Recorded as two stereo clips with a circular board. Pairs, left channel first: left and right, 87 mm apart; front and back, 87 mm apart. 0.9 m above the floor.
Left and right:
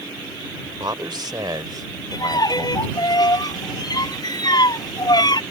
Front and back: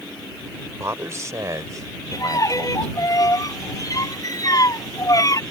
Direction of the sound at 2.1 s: 50° left.